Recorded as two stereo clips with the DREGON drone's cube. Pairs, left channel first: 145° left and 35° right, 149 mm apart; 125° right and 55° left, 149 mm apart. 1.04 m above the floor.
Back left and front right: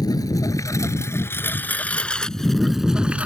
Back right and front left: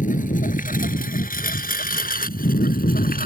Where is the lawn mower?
150° right; by 3.2 s 115° right.